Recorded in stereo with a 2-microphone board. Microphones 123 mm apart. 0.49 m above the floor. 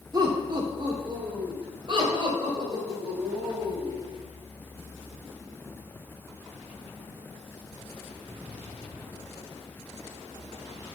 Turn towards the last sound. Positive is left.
turn(degrees=-40)  # may be behind; listen again after turning